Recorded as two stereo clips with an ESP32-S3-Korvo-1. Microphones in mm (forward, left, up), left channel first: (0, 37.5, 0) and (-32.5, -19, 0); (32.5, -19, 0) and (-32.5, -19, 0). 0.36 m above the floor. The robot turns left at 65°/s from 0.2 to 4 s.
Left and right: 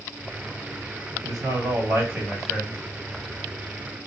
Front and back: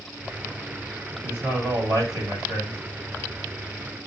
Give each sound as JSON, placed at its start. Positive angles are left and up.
{"t": 1.2, "sound": "a man speaking", "azimuth_deg": -120, "distance_m": 2.5}